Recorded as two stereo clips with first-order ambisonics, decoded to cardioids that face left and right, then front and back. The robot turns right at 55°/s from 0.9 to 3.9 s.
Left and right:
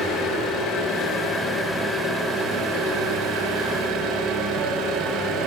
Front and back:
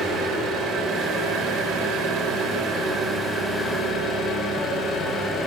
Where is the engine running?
120° left, 2.5 m; by 5.5 s 75° right, 2.5 m.